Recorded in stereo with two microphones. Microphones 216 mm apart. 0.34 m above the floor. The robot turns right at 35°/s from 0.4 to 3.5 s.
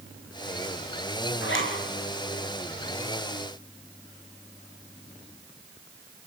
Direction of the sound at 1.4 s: 70° left (ahead or behind).